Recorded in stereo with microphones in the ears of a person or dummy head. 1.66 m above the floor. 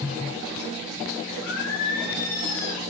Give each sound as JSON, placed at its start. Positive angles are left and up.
{"t": 1.4, "sound": "singing", "side_deg": 70, "distance_m": 8.5}